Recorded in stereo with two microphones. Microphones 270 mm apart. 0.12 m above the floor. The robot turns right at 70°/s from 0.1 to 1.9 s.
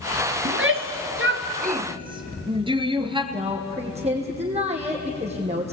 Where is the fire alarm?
No fire alarm in this recording.